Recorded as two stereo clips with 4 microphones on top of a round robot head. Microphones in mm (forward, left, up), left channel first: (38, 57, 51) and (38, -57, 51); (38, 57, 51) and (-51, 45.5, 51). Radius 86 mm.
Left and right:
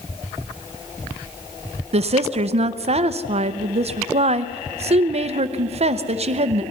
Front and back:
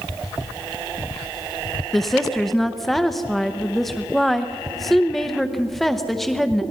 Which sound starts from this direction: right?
A woman speaking, at 1.9 s.